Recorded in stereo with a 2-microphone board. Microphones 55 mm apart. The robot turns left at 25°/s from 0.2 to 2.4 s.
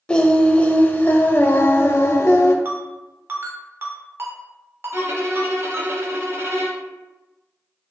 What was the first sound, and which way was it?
Singing, 155° left.